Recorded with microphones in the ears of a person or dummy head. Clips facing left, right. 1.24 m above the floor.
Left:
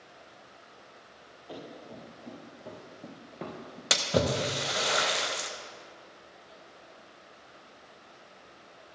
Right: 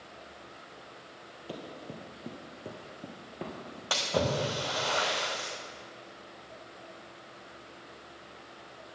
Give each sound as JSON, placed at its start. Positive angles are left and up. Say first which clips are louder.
{"t": 1.5, "sound": "running footsteps", "louder": "right 1 dB", "side_deg": -40, "distance_m": 1.8}
{"t": 3.9, "sound": "a splash", "louder": "left 2 dB", "side_deg": 30, "distance_m": 0.8}